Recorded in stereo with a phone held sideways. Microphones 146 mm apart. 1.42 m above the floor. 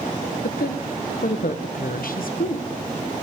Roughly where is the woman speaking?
Left.